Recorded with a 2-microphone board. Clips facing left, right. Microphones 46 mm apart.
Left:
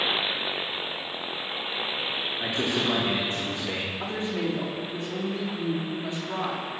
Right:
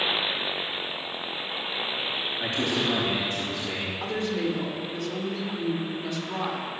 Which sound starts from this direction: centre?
A man speaking, at 2.4 s.